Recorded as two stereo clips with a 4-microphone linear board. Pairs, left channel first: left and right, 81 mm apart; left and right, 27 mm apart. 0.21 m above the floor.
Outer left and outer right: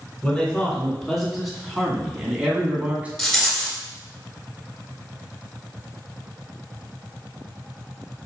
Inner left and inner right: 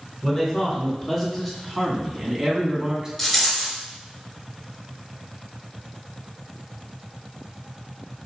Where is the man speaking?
10° left (ahead or behind), 2.5 m; by 3.1 s 20° right (ahead or behind), 1.9 m.